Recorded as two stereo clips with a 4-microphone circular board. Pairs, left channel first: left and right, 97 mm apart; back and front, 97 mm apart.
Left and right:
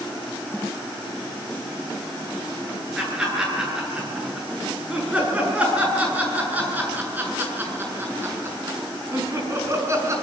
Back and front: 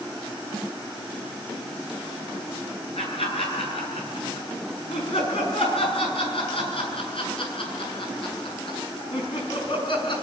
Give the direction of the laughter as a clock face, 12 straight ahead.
6 o'clock.